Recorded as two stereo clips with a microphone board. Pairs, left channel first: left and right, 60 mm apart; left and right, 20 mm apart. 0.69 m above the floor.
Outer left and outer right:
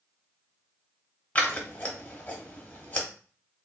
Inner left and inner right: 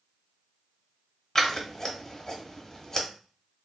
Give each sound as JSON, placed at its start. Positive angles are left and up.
{"t": 1.4, "sound": "scissors", "side_deg": 25, "distance_m": 0.8}